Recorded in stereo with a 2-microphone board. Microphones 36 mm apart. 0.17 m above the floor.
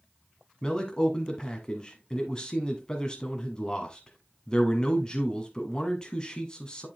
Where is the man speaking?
25° left (ahead or behind), 1.2 m.